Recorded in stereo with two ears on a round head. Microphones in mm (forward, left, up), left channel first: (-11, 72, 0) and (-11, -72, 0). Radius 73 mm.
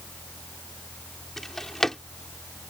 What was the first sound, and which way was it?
A drawer, 5° left (ahead or behind).